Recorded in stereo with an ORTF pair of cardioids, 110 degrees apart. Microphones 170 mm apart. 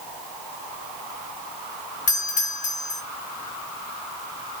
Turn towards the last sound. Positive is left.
turn(degrees=50)